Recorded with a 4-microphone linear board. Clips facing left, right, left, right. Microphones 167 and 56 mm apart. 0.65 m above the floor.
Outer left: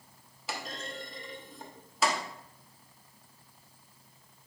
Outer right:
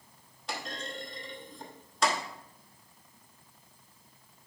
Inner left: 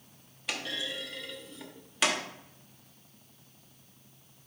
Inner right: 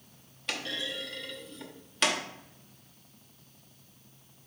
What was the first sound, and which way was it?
A clunk, 5° left (ahead or behind).